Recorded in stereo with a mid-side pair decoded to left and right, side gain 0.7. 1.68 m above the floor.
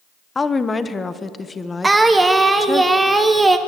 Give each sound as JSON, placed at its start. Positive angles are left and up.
{"t": 0.3, "sound": "a woman speaking", "azimuth_deg": 20, "distance_m": 1.1}
{"t": 1.8, "sound": "singing", "azimuth_deg": -15, "distance_m": 1.4}